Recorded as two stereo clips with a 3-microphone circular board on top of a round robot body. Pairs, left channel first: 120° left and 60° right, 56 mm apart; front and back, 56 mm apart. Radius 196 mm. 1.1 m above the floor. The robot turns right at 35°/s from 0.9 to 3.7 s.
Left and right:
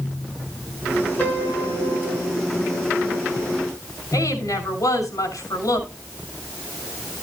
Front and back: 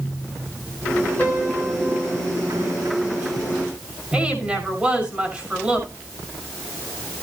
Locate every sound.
1.2 s a piano: 65° left, 6 m; by 2.3 s 100° left, 6 m
4.1 s a woman speaking: 110° left, 6 m